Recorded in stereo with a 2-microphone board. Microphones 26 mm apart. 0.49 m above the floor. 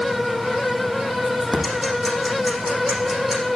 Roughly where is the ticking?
Centre.